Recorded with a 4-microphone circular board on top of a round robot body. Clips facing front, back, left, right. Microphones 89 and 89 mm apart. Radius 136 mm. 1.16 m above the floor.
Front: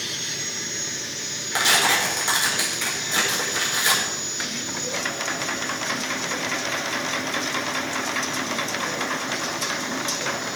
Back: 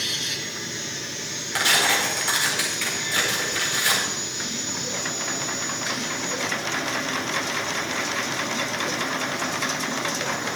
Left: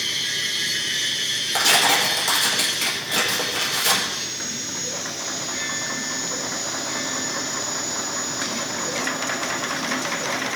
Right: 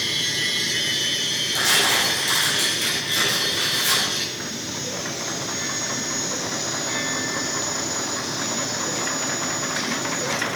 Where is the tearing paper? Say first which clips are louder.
Front 1 dB, left 3 dB; 70° left, 5 m.